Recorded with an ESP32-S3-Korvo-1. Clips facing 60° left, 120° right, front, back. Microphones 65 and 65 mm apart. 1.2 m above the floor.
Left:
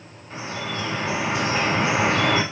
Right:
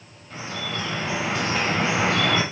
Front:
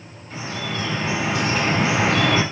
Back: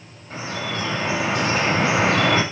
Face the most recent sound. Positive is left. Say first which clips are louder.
# left 1 dB, back 1 dB
turn(degrees=130)